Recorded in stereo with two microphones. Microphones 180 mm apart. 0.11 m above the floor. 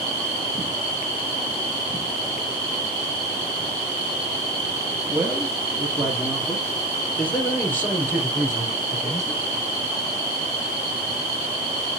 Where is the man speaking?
15° right (ahead or behind), 2.5 m; by 9.4 s 20° left (ahead or behind), 4 m.